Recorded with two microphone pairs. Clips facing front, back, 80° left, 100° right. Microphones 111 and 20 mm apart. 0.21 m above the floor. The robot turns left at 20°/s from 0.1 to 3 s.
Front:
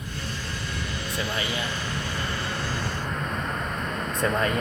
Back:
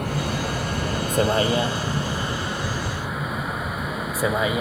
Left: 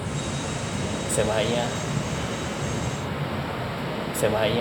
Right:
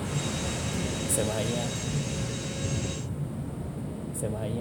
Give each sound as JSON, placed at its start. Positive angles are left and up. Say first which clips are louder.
{"t": 0.0, "sound": "a vehicle", "louder": "back 9 dB, left 2 dB", "azimuth_deg": 155}